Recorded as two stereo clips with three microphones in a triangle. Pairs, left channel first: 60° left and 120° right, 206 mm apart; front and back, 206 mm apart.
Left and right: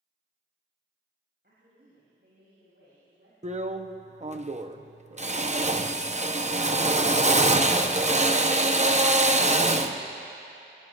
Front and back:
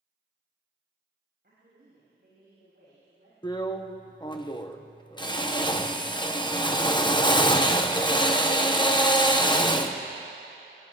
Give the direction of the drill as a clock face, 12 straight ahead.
2 o'clock.